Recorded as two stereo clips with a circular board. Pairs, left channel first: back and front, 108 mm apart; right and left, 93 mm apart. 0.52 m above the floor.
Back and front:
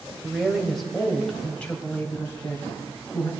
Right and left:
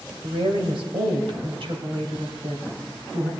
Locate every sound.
0.2 s a woman speaking: 80° left, 1.8 m; by 3.3 s 115° left, 3 m